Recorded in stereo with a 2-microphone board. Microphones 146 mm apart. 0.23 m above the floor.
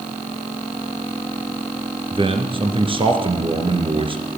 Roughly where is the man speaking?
Right.